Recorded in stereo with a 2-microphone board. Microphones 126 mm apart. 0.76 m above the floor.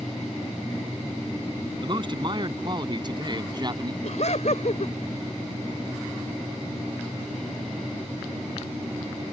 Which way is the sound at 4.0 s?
65° left (ahead or behind).